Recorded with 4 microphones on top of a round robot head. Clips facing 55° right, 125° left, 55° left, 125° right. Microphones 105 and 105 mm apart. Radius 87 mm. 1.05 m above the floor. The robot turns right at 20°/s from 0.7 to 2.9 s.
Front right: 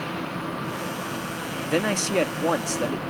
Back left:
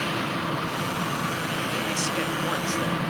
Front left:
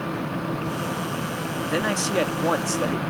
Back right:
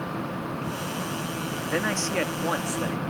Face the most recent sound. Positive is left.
turn(degrees=0)